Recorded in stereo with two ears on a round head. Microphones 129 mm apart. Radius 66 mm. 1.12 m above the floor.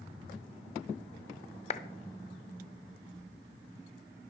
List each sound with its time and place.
1.7 s a clap: 45° left (ahead or behind), 0.8 m